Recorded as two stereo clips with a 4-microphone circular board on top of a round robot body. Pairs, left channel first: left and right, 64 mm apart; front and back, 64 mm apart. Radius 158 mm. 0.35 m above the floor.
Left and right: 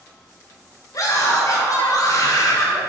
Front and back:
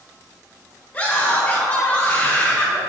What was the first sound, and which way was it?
A scream, 70° left.